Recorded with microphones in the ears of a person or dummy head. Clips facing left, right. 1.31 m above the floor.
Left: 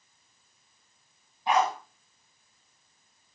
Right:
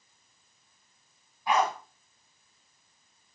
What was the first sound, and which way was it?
A dog barking, 20° left (ahead or behind).